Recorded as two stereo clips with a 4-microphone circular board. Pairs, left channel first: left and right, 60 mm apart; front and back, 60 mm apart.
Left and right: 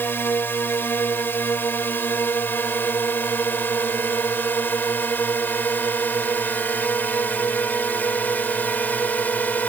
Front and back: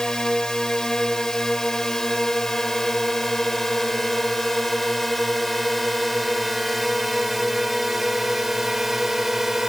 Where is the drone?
70° left; by 9.7 s 100° left.